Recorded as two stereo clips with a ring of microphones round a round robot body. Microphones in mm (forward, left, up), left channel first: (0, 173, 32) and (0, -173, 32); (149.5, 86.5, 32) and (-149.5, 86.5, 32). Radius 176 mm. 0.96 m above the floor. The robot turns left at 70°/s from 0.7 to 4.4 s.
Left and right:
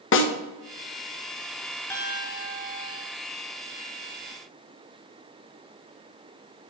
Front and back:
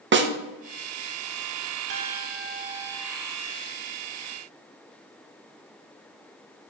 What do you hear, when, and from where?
0.1 s a snare drum: 135° left, 0.9 m
1.9 s a piano: 170° left, 1.5 m; by 3.1 s 90° left, 1.5 m